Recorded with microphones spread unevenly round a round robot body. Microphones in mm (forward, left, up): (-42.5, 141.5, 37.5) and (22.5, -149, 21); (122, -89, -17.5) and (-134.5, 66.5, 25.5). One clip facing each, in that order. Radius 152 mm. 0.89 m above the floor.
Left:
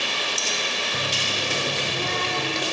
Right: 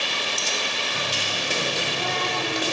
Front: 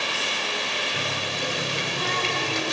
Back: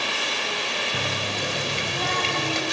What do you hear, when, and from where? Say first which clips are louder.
0.9 s a running tap: left 1 dB, back 2 dB; 160° left, 3 m